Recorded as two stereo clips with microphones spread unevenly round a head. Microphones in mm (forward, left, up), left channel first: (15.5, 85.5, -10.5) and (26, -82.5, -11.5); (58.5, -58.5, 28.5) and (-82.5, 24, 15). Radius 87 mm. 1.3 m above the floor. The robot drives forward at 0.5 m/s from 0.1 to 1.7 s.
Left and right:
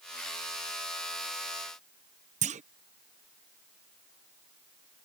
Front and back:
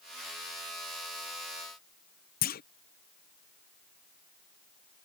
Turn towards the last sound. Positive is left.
turn(degrees=-50)